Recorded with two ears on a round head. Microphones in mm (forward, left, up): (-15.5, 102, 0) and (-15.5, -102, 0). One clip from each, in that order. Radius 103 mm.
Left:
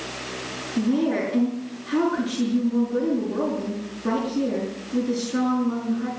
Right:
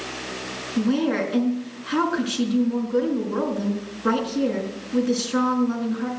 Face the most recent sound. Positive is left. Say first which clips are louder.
# right 1 dB
turn(degrees=-65)  # may be behind; listen again after turning